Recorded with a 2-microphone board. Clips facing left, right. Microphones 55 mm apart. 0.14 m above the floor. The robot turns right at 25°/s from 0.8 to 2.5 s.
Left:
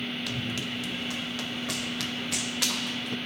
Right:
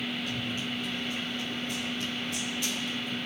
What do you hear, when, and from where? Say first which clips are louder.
0.3 s running footsteps: left 1 dB; 85° left, 2.5 m; by 3.2 s 75° left (ahead or behind), 2 m